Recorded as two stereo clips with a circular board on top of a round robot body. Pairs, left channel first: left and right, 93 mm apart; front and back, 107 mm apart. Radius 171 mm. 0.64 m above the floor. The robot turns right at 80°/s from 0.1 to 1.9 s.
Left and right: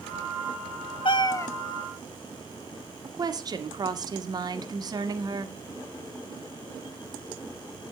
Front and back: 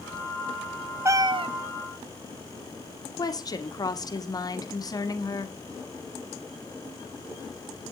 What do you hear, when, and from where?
1.1 s a cat meowing: 115° left, 0.5 m; by 1.5 s 150° left, 0.5 m
3.0 s a woman speaking: 50° right, 1.7 m